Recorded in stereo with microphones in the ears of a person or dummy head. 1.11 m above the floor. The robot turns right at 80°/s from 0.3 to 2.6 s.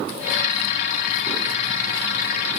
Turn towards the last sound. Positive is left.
No sound to turn to.